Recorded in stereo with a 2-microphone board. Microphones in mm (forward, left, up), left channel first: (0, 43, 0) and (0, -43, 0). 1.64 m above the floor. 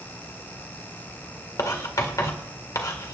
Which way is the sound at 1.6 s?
45° left (ahead or behind).